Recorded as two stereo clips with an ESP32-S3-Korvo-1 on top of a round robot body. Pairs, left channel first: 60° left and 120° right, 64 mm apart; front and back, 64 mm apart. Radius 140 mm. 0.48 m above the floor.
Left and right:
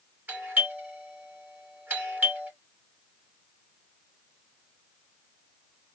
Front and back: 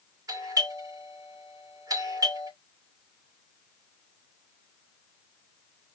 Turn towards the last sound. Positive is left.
turn(degrees=180)